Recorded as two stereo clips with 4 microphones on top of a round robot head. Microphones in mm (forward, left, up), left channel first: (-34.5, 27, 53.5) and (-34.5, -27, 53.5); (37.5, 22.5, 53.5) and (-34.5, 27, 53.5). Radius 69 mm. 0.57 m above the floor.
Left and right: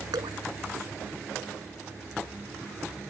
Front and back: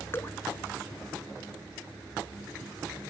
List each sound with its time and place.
0.1 s dripping: 70° right